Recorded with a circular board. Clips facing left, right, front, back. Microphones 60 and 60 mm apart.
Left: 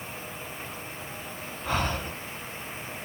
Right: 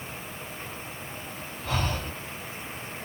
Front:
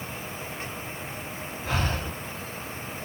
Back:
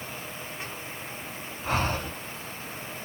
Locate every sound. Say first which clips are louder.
1.6 s breathing: left 2 dB, back 2 dB; 145° left, 2.5 m